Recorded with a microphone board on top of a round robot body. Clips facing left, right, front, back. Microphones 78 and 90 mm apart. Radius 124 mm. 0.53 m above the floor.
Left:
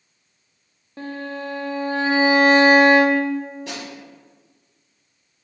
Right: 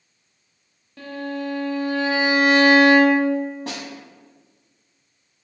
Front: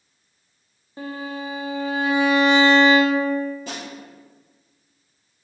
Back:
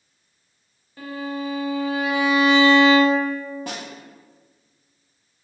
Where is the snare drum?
145° right, 0.6 m.